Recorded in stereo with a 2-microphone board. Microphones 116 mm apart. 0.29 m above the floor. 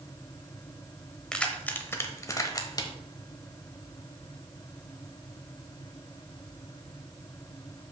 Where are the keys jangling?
5° left (ahead or behind), 0.8 m; by 2.9 s 35° left (ahead or behind), 0.9 m.